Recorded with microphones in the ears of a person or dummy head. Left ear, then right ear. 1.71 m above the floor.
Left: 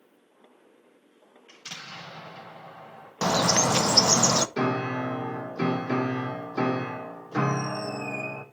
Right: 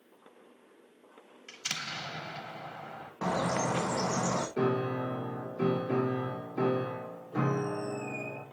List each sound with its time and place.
1.5 s an explosion: 75° right (ahead or behind), 3 m
3.2 s a bird: 80° left, 0.6 m
4.6 s a piano: 70° left (ahead or behind), 1.0 m